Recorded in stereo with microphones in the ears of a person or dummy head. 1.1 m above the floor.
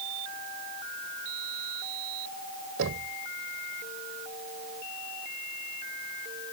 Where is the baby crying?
I don't hear a baby crying.